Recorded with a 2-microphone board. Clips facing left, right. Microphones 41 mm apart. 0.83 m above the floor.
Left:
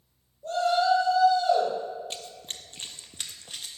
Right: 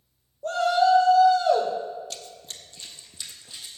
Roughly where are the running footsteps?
Left.